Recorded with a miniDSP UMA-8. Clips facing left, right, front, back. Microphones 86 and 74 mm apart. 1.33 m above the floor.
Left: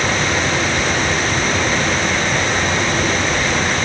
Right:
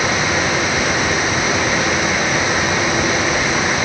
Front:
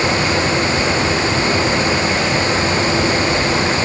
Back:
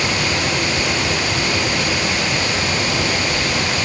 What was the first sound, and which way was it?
Only background noise.